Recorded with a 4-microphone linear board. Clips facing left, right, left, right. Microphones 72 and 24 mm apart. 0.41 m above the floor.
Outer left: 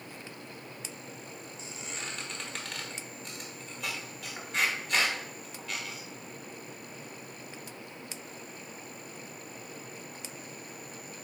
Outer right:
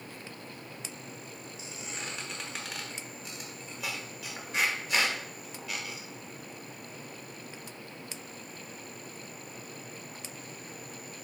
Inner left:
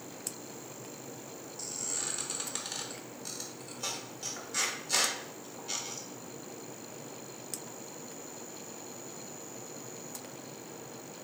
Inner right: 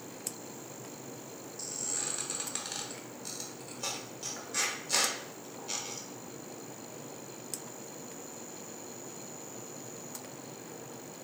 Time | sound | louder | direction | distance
1.6 | a squeak | outer right 1 dB, even | 5° right (ahead or behind) | 0.8 m